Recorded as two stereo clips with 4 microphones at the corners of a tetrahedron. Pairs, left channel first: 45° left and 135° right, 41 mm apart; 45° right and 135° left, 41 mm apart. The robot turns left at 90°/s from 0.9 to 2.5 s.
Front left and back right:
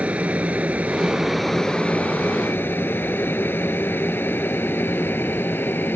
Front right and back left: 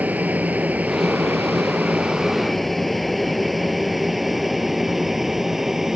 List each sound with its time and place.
0.0 s an aircraft: 175° left; by 6.0 s 55° left